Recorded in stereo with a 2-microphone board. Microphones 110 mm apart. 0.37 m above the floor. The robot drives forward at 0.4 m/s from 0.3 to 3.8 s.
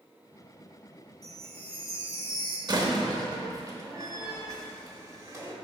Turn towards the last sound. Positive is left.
turn(degrees=-30)  # may be behind; listen again after turning